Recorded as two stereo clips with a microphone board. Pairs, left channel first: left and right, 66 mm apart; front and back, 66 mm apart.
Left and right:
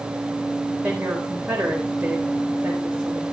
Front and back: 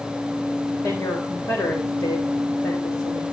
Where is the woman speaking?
20° right, 4 m.